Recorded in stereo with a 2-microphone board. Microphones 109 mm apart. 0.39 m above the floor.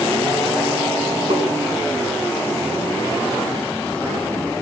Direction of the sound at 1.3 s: 65° right (ahead or behind).